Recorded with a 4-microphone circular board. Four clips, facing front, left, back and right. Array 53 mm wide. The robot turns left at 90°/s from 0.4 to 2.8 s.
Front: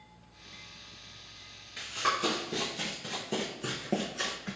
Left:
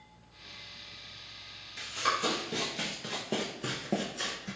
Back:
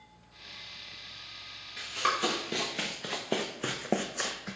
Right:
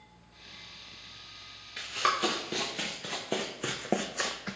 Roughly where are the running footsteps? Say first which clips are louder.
Right 2 dB, back 1 dB; right.